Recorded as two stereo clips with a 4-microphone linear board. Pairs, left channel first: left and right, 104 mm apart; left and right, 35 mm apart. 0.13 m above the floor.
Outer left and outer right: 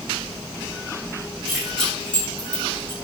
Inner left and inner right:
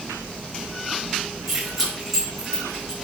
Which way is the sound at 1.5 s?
Centre (ahead or behind).